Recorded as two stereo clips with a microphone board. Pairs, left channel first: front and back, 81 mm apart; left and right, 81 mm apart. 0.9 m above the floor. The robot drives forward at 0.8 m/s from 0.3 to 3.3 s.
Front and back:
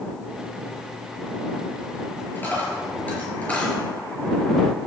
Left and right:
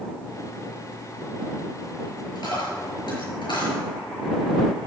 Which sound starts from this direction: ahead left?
A dropped coin, at 2.4 s.